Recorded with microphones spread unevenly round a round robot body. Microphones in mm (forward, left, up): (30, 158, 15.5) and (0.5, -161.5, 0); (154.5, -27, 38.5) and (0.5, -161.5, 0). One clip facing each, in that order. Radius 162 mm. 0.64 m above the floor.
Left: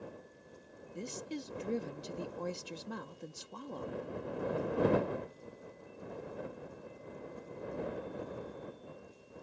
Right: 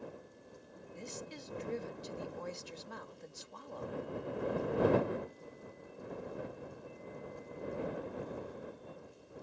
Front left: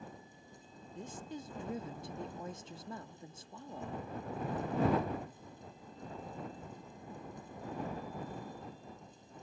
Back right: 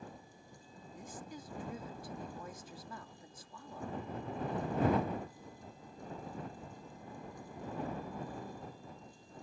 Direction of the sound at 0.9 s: 110° left.